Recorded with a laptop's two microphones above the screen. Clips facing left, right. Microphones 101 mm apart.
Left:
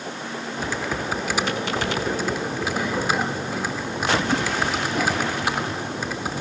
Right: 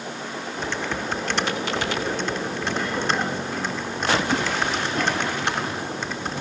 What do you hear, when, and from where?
0.6 s typing on a keyboard: 5° left (ahead or behind), 0.9 m